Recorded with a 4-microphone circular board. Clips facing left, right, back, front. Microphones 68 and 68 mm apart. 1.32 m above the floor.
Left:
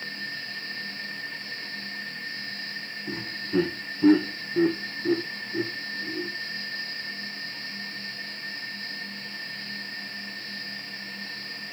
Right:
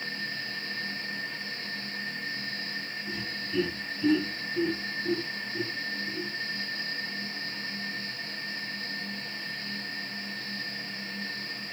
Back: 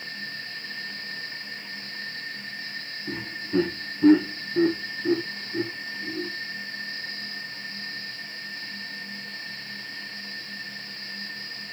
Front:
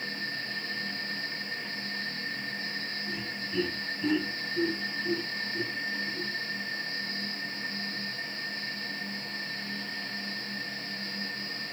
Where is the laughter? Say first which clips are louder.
Left 6 dB, back 6 dB; 135° left, 0.6 m.